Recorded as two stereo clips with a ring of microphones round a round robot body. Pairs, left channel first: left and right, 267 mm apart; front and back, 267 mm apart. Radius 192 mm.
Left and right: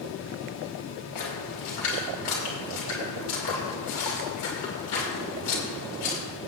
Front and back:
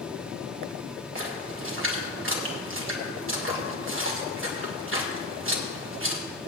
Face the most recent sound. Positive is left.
turn(degrees=135)